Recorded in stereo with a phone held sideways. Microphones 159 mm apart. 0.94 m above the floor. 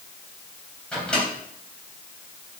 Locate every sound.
0.9 s a microwave: 5° left (ahead or behind), 3.5 m